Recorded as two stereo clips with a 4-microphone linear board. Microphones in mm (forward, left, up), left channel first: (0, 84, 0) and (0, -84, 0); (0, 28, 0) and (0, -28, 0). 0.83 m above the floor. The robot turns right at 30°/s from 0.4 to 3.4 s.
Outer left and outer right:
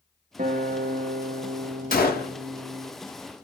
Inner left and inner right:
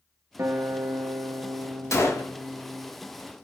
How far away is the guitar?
About 0.8 m.